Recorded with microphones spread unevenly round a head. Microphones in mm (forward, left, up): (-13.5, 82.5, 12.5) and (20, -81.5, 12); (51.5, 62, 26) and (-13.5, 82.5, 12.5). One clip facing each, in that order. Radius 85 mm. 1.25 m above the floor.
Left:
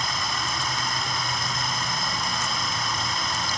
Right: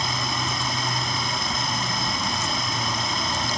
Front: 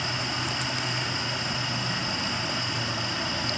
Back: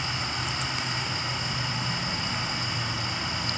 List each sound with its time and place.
0.0 s running water: 60° right, 7 m